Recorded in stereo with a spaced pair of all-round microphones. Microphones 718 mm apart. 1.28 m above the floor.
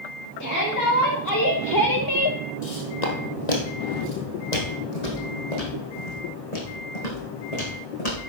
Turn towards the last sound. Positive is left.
turn(degrees=60)  # may be behind; listen again after turning